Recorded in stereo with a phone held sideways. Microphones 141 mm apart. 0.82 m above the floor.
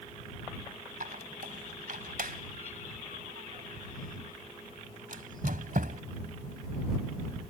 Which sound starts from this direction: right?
A squeak, at 1.0 s.